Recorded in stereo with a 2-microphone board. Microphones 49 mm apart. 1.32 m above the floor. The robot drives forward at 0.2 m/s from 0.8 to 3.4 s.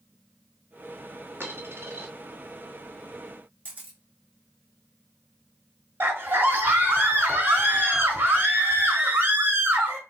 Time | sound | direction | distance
1.4 | a dropped coin | 55° right (ahead or behind) | 1.2 m
3.6 | a camera shutter | 35° right (ahead or behind) | 1.6 m
6.0 | a scream | 60° right (ahead or behind) | 0.8 m